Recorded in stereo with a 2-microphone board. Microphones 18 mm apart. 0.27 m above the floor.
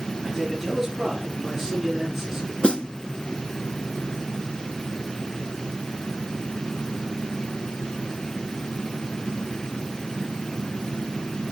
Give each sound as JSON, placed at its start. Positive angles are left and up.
{"t": 0.2, "sound": "a man speaking", "side_deg": 0, "distance_m": 5.0}
{"t": 2.6, "sound": "a snare drum", "side_deg": 65, "distance_m": 0.7}